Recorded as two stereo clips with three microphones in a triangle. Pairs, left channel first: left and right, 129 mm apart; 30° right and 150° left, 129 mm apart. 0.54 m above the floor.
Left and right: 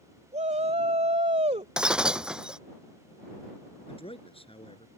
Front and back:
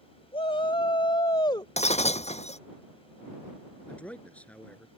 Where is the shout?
70° right; by 1.7 s 80° right.